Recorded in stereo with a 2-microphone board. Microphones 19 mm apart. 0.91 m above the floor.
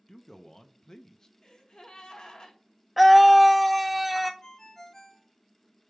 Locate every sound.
0.1 s a man speaking: 35° left (ahead or behind), 0.6 m
1.4 s a gasp: 50° left (ahead or behind), 1.4 m
3.0 s a scream: 5° right (ahead or behind), 0.5 m
4.4 s a ringtone: 35° left (ahead or behind), 1.0 m